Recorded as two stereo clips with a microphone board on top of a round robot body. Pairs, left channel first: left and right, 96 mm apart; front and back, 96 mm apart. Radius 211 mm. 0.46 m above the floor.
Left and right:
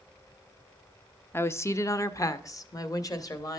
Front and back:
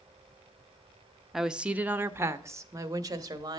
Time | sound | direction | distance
1.3 | a woman speaking | 95° left | 0.9 m